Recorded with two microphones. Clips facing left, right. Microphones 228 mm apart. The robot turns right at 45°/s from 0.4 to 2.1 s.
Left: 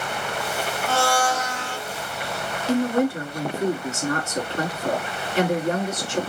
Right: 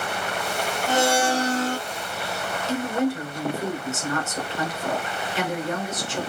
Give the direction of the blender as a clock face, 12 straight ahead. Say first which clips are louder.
Right 2 dB; 5 o'clock.